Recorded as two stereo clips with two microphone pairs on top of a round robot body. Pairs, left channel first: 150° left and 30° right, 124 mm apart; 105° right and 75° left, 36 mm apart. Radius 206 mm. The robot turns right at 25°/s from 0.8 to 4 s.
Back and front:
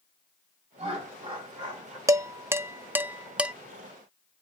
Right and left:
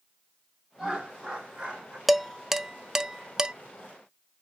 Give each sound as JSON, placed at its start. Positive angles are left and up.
{"t": 0.8, "sound": "laughter", "azimuth_deg": 5, "distance_m": 2.0}
{"t": 2.1, "sound": "dishes clattering", "azimuth_deg": 0, "distance_m": 0.6}